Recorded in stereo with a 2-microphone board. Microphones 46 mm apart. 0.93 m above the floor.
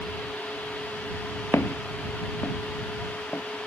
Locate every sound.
1.5 s footsteps: 75° left (ahead or behind); by 3.4 s 45° left (ahead or behind)